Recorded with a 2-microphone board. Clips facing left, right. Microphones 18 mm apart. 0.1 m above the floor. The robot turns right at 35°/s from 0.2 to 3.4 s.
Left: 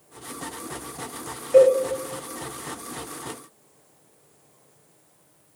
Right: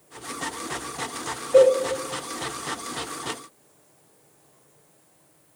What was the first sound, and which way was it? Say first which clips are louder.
A cowbell: left 1 dB; 25° left (ahead or behind).